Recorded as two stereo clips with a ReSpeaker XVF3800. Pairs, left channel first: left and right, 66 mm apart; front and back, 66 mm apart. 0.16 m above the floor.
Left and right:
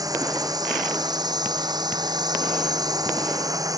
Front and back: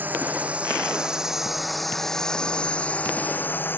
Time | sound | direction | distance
0.0 | a drone | 115° right | ?